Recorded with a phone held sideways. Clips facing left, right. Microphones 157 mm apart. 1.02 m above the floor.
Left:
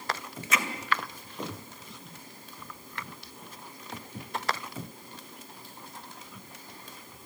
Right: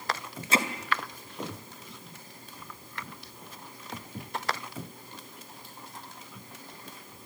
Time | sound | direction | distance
0.5 | hammering | 30° right (ahead or behind) | 2 m